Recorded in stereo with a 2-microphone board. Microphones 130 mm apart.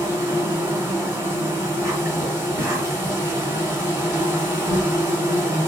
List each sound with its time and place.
0.0 s an insect: 25° right (ahead or behind), 1.3 m